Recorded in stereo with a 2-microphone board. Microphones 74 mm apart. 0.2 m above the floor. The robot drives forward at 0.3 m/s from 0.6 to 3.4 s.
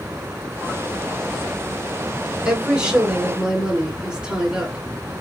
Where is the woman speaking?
15° right (ahead or behind), 2.5 m.